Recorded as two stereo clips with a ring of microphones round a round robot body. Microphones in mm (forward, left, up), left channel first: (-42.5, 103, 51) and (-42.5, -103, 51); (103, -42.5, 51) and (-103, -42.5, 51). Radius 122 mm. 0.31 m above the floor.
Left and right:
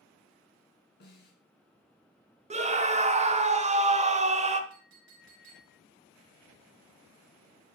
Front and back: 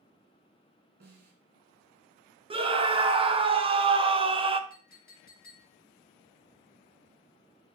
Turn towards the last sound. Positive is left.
turn(degrees=-45)